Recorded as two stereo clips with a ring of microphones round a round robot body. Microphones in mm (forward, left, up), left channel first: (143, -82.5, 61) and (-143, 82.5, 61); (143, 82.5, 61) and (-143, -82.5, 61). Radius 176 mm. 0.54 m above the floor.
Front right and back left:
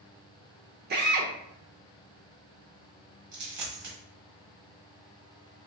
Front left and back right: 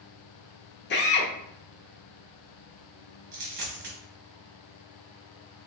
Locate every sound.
0.9 s a drill: 90° left, 0.7 m
3.3 s a dropped coin: 150° left, 1.3 m